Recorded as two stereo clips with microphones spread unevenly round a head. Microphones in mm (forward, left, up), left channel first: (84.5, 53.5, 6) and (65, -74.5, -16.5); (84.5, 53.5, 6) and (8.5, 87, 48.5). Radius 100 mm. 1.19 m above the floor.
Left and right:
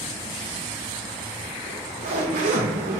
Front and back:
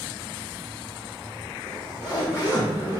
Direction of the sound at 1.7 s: 100° right.